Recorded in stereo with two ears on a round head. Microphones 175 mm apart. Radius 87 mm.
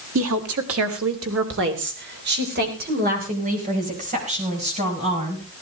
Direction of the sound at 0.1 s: 75° right (ahead or behind).